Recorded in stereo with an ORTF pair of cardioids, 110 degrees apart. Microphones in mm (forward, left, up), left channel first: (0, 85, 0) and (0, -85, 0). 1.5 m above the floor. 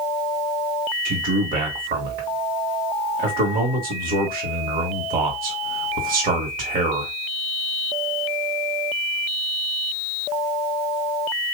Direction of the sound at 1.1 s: 55° right.